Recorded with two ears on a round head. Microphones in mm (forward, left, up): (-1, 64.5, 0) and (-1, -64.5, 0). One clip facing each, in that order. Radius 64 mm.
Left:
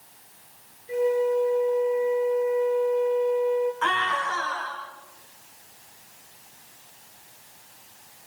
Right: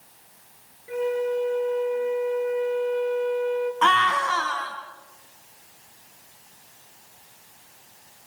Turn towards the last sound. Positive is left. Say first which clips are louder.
# right 5 dB
turn(degrees=-75)  # may be behind; listen again after turning